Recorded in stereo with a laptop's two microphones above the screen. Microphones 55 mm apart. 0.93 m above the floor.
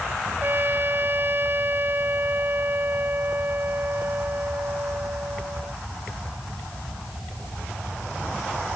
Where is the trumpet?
45° right (ahead or behind).